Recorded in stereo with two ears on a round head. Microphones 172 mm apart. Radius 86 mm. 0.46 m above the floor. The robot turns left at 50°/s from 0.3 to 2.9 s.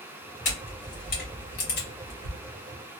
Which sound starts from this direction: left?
A camera shutter, at 0.5 s.